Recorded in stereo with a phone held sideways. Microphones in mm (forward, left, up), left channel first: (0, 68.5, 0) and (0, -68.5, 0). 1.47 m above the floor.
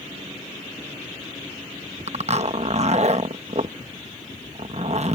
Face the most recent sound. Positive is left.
turn(degrees=-55)  # may be behind; listen again after turning